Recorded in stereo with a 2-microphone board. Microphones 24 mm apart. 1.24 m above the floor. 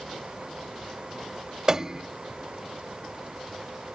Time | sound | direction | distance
1.7 | a piano | 25° right (ahead or behind) | ?